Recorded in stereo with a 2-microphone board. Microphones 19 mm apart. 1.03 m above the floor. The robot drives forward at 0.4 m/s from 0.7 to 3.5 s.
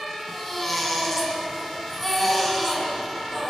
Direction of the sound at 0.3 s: 15° left (ahead or behind).